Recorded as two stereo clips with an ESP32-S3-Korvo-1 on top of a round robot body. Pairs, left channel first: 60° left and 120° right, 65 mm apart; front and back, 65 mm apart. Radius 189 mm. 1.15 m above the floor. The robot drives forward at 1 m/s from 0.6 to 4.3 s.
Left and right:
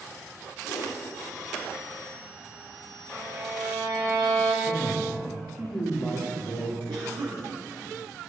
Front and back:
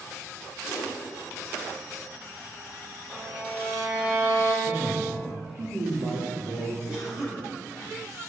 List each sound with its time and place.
0.7 s a whoosh: 40° left, 1.9 m; by 1.0 s 50° left, 1.7 m
3.1 s a violin: 125° right, 4 m; by 4.5 s 135° right, 4.5 m
4.6 s a man speaking: 135° left, 3.5 m
6.9 s a cough: 115° right, 3.5 m